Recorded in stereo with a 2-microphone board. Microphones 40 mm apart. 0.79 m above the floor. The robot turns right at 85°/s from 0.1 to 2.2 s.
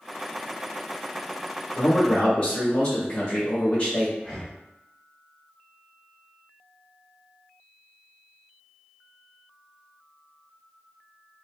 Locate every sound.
1.8 s a man speaking: 105° left, 1.6 m; by 4.1 s 145° left, 1.6 m
4.2 s breathing: 5° left (ahead or behind), 1.5 m